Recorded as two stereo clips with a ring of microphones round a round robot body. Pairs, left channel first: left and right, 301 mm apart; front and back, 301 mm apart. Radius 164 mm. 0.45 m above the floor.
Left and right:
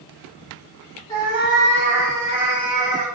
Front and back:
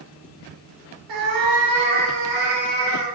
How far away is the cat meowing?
About 0.8 m.